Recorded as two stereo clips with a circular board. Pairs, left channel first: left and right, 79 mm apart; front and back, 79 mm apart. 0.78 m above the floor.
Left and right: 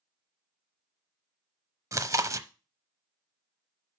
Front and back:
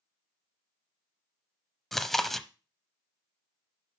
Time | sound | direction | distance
1.9 | chewing | 90° right | 0.7 m